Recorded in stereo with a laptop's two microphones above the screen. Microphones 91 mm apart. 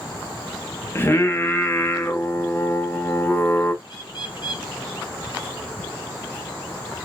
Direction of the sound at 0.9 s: 25° left (ahead or behind).